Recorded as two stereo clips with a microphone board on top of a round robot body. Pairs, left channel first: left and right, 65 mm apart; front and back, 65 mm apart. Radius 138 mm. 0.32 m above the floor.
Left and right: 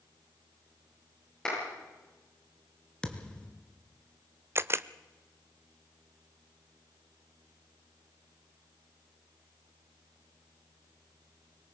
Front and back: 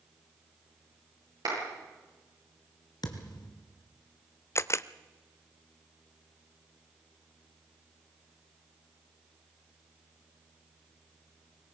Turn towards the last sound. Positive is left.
turn(degrees=-40)